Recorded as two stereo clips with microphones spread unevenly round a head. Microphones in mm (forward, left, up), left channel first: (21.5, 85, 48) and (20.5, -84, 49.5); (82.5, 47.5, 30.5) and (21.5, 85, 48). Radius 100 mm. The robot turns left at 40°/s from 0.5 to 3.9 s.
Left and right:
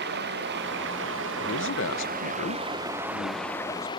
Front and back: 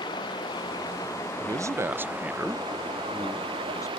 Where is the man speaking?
110° left; by 3.9 s 10° left.